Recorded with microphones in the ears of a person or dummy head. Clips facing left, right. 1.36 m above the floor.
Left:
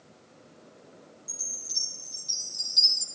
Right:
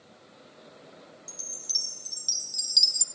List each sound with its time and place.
1.3 s a chime: 45° right (ahead or behind), 1.4 m